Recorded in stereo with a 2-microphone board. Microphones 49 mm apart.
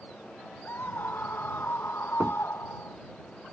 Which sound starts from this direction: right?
Knocking, at 2.2 s.